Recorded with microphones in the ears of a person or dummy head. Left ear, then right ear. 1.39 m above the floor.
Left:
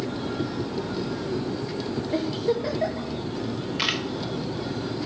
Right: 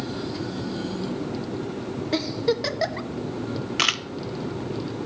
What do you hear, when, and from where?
2.1 s a giggle: 50° right (ahead or behind), 1.0 m
3.8 s a camera shutter: 50° right (ahead or behind), 0.6 m